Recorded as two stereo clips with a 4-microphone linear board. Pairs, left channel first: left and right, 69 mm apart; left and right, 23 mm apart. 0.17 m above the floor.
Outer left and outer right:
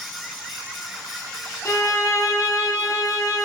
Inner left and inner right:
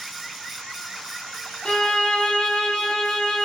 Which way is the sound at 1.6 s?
50° left (ahead or behind).